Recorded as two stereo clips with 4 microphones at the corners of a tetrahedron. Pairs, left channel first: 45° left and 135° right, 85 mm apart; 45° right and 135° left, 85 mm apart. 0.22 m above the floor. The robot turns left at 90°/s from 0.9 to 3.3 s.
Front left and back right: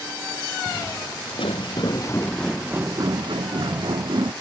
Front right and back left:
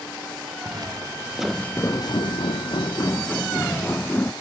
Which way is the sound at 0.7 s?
95° left.